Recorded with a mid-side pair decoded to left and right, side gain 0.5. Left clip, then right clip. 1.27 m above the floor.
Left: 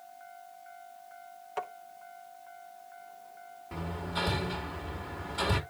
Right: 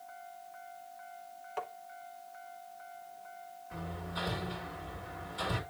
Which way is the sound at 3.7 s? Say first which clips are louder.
Left 5 dB; 55° left.